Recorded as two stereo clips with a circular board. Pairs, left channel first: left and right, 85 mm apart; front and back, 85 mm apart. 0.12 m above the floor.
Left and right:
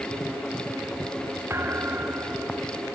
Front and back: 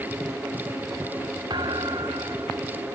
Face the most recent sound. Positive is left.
turn(degrees=-150)